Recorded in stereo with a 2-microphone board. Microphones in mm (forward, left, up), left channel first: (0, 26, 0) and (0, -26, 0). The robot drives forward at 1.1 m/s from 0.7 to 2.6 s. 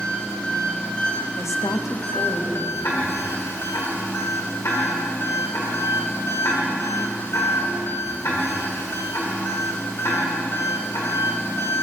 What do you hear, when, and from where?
0.0 s an engine running: 25° left (ahead or behind), 3 m; by 11.8 s 55° left (ahead or behind), 1.6 m
1.4 s a woman speaking: 55° left (ahead or behind), 0.7 m; by 2.7 s 30° left (ahead or behind), 1.2 m
2.8 s ticking: 65° left (ahead or behind), 2.5 m